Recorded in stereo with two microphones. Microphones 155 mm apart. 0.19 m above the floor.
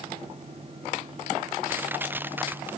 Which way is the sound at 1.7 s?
10° right (ahead or behind).